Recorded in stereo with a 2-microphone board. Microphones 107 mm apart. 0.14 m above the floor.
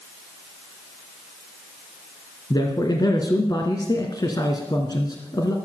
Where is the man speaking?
40° left (ahead or behind), 1.8 m.